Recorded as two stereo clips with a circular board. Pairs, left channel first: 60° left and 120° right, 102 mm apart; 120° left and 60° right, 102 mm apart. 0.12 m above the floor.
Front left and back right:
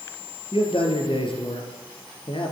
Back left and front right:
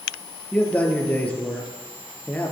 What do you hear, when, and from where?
0.5 s a man speaking: 45° left, 3 m